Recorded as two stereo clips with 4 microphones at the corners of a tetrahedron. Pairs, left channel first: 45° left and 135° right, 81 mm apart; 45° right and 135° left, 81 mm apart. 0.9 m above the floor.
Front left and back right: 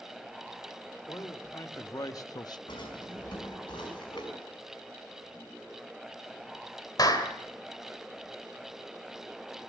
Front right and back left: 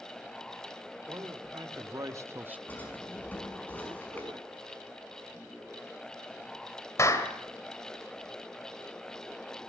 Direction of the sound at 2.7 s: 25° left.